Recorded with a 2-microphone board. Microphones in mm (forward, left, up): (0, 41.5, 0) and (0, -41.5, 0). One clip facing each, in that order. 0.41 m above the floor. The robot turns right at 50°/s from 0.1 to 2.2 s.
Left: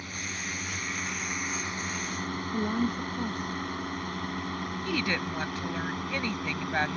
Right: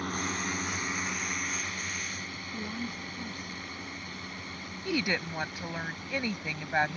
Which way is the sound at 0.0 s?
55° right (ahead or behind).